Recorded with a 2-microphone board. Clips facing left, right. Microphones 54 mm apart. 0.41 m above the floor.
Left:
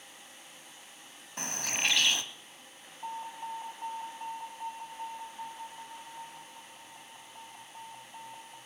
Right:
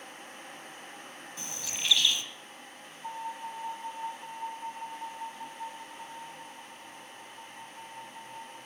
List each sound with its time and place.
1.4 s a bird: 60° left (ahead or behind), 1.1 m
3.0 s an alarm: 50° left (ahead or behind), 7.5 m